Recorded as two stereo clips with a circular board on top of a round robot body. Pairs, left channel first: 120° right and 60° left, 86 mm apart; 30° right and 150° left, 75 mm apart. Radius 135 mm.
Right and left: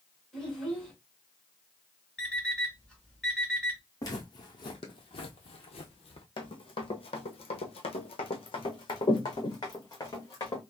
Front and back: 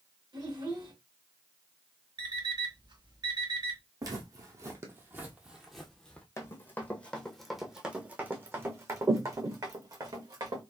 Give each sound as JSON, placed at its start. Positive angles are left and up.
{"t": 0.3, "sound": "a child speaking", "azimuth_deg": 155, "distance_m": 2.0}
{"t": 2.2, "sound": "an alarm clock", "azimuth_deg": 160, "distance_m": 2.0}
{"t": 4.0, "sound": "footsteps", "azimuth_deg": -170, "distance_m": 1.3}
{"t": 6.4, "sound": "running footsteps", "azimuth_deg": -85, "distance_m": 1.0}